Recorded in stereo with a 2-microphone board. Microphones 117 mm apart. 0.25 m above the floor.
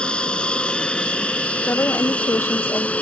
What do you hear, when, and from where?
0.0 s an aircraft: 10° left (ahead or behind)
1.7 s a woman speaking: 20° left (ahead or behind)